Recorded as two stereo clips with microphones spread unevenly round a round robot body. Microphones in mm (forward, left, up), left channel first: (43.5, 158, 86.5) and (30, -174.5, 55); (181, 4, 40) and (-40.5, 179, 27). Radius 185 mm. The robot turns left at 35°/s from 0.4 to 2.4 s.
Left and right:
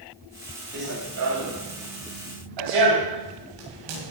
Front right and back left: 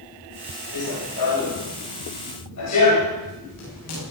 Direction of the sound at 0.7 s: 30° right.